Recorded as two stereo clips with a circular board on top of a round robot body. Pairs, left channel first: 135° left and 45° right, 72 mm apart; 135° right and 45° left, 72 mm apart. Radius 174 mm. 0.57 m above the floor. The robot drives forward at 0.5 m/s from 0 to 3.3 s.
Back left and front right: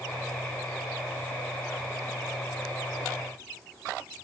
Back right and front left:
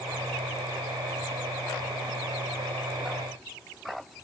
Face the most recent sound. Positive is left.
No sound to turn to.